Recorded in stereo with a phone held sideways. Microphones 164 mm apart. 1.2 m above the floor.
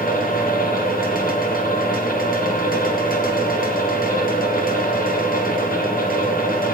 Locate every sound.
0.0 s a fan: 65° left (ahead or behind), 1.6 m